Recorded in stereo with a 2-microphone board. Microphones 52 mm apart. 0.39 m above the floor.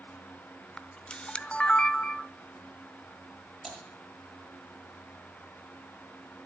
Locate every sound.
0.8 s a camera shutter: 20° left (ahead or behind), 0.7 m
3.6 s typing on a keyboard: 10° left (ahead or behind), 8 m